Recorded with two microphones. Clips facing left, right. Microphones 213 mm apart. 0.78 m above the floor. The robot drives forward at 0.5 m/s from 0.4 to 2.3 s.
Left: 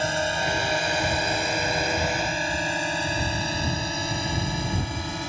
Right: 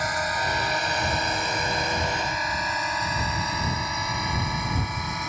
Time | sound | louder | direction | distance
0.0 | a drone | left 3 dB | 25° left (ahead or behind) | ?